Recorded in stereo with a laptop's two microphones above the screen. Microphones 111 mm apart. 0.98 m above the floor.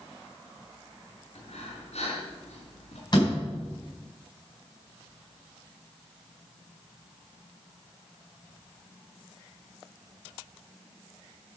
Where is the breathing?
80° left, 4 m.